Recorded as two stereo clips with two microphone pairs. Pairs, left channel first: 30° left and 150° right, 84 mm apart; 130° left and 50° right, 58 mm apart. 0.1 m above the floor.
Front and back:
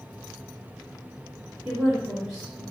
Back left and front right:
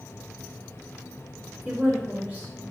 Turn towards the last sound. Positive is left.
turn(degrees=-70)